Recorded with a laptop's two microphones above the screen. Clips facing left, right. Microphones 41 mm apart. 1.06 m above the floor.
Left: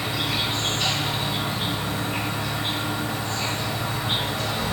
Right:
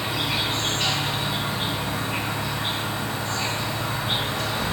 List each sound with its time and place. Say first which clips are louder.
0.0 s an insect: even; 40° right (ahead or behind), 0.9 m